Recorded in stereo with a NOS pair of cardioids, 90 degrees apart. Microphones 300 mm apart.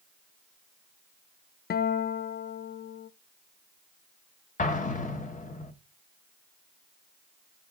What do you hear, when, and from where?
1.7 s a guitar: 30° left, 0.5 m
4.6 s an explosion: 25° left, 1.4 m